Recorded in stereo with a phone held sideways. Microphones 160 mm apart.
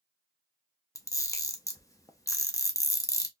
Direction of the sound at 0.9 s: 20° left (ahead or behind).